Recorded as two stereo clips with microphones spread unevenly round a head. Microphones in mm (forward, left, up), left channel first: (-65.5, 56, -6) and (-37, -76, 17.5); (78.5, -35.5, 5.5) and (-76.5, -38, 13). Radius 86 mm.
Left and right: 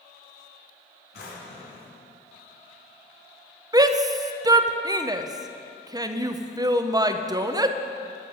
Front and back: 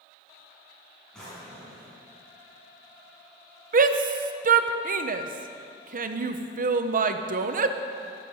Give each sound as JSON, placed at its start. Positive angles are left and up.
{"t": 1.1, "sound": "a drawer", "azimuth_deg": 90, "distance_m": 4.0}
{"t": 3.7, "sound": "a shout", "azimuth_deg": -145, "distance_m": 0.6}